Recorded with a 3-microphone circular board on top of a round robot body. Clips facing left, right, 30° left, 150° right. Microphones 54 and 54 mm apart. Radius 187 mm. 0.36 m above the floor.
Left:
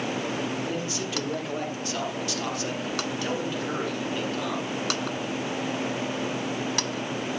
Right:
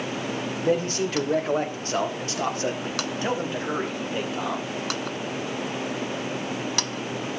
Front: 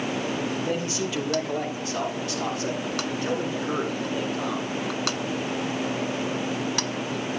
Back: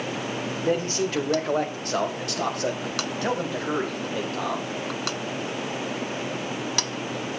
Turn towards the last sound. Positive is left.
turn(degrees=-155)